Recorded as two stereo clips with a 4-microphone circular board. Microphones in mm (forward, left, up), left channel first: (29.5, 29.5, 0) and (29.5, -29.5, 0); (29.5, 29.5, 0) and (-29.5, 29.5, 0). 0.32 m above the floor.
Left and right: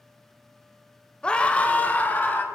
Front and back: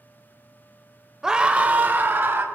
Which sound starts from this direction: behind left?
A scream, at 1.2 s.